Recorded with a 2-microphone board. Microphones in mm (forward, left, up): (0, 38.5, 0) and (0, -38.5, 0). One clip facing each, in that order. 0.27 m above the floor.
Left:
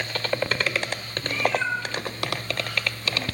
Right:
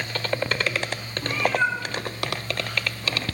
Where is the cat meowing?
55° right (ahead or behind), 5 m; by 3.2 s 45° right (ahead or behind), 6.5 m.